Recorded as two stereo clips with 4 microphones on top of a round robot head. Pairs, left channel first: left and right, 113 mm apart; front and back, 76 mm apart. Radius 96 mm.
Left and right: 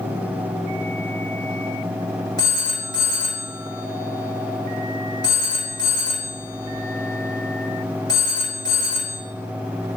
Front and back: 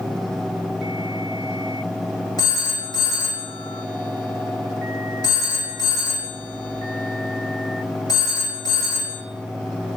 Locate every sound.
2.4 s a phone ringing: 35° left, 1.5 m